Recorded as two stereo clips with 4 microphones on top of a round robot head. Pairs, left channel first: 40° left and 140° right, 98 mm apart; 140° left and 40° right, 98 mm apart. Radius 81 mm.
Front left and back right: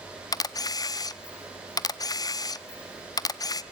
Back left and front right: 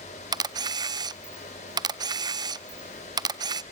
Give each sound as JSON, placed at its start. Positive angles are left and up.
{"t": 0.3, "sound": "a camera shutter", "azimuth_deg": -5, "distance_m": 0.5}